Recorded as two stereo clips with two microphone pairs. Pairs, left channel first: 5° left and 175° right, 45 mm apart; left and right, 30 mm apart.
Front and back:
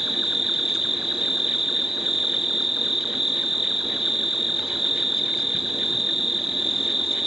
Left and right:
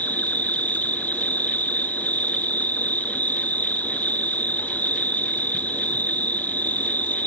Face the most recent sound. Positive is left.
turn(degrees=105)